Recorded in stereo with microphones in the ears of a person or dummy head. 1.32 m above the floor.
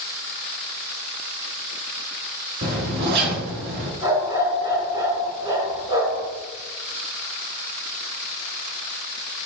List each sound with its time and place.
2.6 s a zipper: 60° right (ahead or behind), 2.5 m
4.0 s a dog barking: 25° right (ahead or behind), 4.5 m